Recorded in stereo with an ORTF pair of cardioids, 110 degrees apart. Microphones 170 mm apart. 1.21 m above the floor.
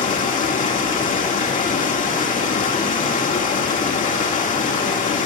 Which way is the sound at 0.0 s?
50° left.